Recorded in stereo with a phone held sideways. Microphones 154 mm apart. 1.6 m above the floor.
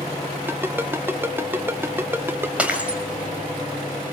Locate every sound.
0.5 s a ringtone: 15° right (ahead or behind), 0.7 m
2.6 s breaking glass: 10° right (ahead or behind), 3 m